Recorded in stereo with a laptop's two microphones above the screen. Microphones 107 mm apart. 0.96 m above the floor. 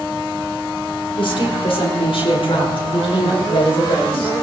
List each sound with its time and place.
1.2 s a woman speaking: 60° left (ahead or behind), 3 m